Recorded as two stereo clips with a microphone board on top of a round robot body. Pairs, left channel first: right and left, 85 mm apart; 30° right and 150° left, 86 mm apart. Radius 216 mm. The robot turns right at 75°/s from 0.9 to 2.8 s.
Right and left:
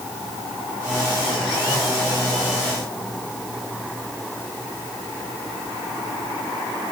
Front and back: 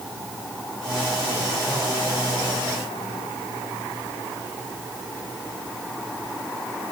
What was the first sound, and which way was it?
Only background noise.